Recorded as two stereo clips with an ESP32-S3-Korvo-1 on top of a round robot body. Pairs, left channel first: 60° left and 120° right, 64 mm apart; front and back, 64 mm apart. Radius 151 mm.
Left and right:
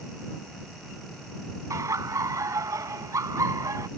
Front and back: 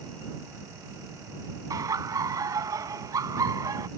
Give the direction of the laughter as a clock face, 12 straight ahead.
5 o'clock.